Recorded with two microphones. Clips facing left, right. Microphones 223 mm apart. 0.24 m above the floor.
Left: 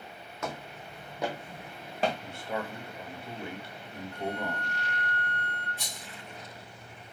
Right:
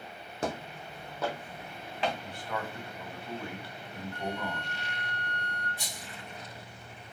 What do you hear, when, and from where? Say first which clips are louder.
0.4 s footsteps: right 3 dB; 35° right (ahead or behind), 0.8 m; by 2.1 s 45° left (ahead or behind), 1.3 m
2.2 s a man speaking: left 2 dB; 25° left (ahead or behind), 1.1 m
4.1 s a flute: left 2 dB; 40° right (ahead or behind), 2 m
5.8 s a rattle: right 1 dB; 15° right (ahead or behind), 3 m